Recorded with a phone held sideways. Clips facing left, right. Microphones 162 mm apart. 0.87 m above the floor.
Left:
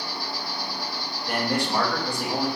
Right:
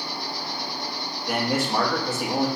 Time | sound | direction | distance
0.0 | an insect | 25° right (ahead or behind) | 1.4 m
1.3 | a man speaking | 5° right (ahead or behind) | 1.1 m